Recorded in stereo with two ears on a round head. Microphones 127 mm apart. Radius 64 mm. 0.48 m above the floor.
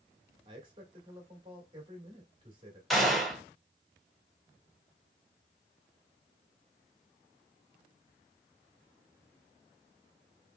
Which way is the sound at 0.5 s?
35° right (ahead or behind).